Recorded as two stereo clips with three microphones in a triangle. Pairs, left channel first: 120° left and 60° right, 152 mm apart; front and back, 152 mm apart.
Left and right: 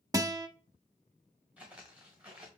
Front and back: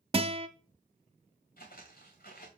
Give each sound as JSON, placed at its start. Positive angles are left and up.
{"t": 0.1, "sound": "a guitar", "azimuth_deg": -125, "distance_m": 0.5}
{"t": 1.6, "sound": "footsteps", "azimuth_deg": 20, "distance_m": 1.8}